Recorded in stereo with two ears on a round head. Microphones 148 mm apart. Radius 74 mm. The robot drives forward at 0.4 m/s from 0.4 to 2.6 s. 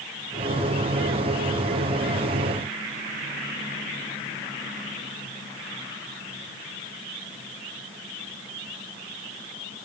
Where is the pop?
I don't hear a pop.